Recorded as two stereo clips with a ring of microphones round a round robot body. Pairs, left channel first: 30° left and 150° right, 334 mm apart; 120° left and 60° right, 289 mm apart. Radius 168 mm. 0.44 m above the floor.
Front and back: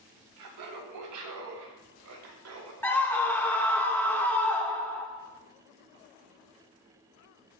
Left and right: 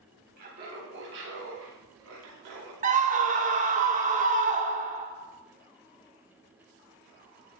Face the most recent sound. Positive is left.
turn(degrees=-50)